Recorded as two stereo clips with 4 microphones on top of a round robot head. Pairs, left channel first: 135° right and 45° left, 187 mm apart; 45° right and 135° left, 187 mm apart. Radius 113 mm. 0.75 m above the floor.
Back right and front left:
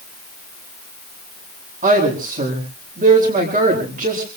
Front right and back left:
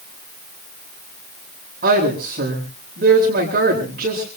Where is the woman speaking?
95° left, 9.5 m.